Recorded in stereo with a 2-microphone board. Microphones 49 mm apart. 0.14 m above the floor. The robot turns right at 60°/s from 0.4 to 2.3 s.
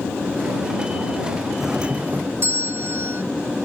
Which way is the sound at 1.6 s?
175° right.